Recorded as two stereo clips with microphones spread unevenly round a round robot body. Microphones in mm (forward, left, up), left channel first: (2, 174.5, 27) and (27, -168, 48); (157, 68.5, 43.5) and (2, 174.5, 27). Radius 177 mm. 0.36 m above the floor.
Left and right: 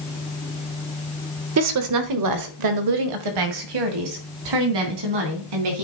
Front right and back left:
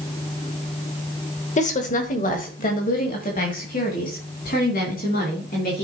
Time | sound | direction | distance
1.6 | a woman speaking | 70° right | 1.2 m